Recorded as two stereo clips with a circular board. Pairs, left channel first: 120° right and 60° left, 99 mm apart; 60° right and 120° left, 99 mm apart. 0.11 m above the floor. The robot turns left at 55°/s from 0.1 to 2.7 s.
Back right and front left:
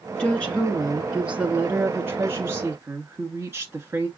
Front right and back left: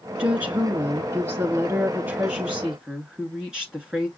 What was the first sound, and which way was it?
A woman speaking, 175° right.